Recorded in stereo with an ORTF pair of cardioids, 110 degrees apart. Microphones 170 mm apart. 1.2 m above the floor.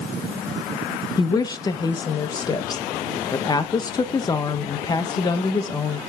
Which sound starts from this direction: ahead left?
A woman speaking, at 1.2 s.